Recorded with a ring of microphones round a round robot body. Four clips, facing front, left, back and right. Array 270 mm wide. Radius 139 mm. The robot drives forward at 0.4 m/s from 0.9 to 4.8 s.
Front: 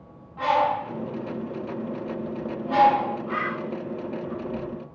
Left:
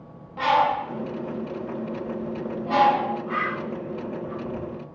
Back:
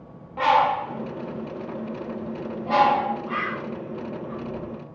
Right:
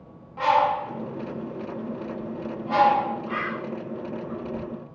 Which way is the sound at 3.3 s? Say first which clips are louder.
Left 2 dB, even; 135° right.